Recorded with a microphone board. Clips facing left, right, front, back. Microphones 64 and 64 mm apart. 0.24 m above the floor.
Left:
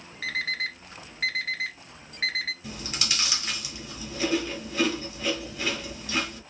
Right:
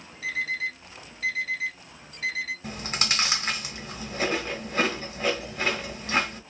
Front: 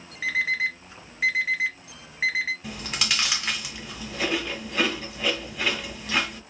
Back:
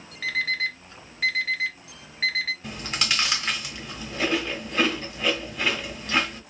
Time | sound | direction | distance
0.2 | an alarm clock | 75° left | 1.0 m
2.6 | chewing | 90° right | 1.5 m